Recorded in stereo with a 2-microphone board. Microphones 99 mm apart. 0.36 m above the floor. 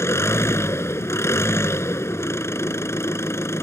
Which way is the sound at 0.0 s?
30° left (ahead or behind).